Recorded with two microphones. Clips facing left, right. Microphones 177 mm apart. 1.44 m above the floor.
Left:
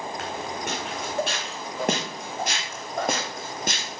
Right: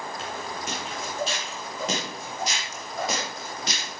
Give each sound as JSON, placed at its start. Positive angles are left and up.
{"t": 0.2, "sound": "footsteps", "side_deg": 65, "distance_m": 4.5}